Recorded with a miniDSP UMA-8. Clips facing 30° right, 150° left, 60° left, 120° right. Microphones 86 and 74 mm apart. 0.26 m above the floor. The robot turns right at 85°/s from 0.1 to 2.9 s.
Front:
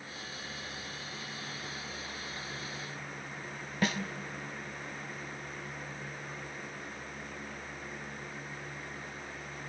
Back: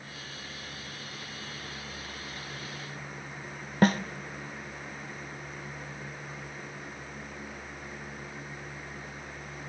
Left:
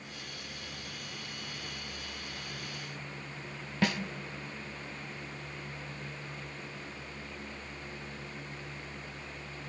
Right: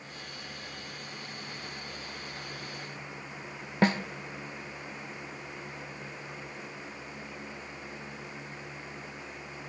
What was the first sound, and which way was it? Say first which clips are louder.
A snare drum: back 8 dB, right 5 dB; 175° right.